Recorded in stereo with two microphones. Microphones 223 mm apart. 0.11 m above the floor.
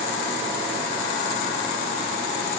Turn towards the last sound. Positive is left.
No sound to turn to.